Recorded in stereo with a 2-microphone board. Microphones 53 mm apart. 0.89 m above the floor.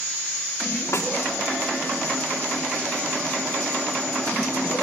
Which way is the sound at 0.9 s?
70° left (ahead or behind).